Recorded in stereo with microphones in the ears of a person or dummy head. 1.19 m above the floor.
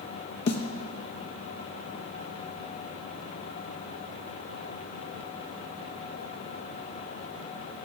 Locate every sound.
0.5 s a snare drum: 50° left (ahead or behind), 0.9 m